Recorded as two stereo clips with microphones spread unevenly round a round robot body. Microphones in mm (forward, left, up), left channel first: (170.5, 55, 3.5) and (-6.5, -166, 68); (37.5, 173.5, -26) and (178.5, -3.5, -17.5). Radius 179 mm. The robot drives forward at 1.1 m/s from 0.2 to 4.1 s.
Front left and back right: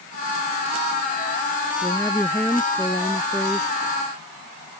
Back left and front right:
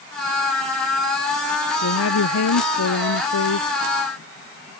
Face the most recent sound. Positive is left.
turn(degrees=145)